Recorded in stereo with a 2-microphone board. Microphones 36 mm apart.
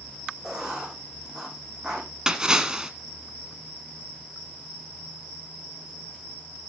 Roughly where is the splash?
Centre.